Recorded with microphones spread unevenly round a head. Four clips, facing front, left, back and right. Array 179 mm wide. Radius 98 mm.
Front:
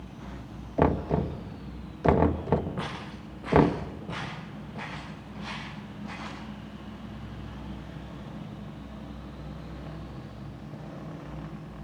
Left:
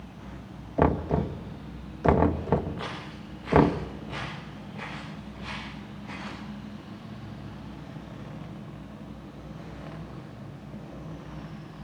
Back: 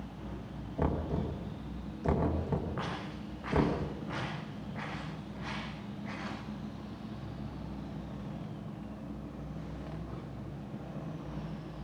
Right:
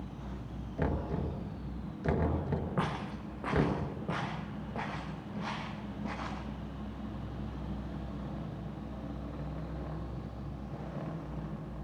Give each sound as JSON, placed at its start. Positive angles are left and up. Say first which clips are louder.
{"t": 0.8, "sound": "knocking", "louder": "left 10 dB, front 9 dB", "azimuth_deg": 45, "distance_m": 1.6}
{"t": 2.8, "sound": "footsteps", "louder": "right 2 dB, front 2 dB", "azimuth_deg": -70, "distance_m": 9.5}